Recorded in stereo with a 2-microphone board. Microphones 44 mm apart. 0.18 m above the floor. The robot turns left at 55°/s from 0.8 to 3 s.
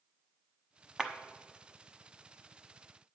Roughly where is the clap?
Centre.